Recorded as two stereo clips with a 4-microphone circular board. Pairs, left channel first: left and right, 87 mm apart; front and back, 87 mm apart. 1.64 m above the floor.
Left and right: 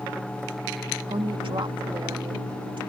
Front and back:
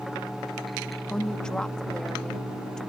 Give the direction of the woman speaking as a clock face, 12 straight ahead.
3 o'clock.